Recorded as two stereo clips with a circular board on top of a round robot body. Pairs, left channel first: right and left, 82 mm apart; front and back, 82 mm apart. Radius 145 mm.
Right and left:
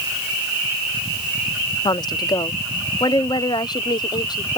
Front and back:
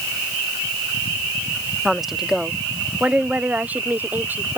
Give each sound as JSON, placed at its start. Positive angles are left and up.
{"t": 1.9, "sound": "a woman speaking", "azimuth_deg": -95}